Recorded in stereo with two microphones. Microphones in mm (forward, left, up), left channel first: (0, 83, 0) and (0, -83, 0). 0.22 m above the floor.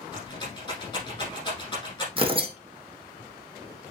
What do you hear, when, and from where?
0.1 s a rattle: 25° left (ahead or behind), 6 m
2.2 s tearing paper: 35° right (ahead or behind), 1.7 m